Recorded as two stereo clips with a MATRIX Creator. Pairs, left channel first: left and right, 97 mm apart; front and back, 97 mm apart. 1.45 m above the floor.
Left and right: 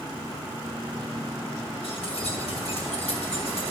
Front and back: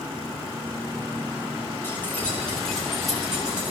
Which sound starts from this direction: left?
Keys jangling, at 1.8 s.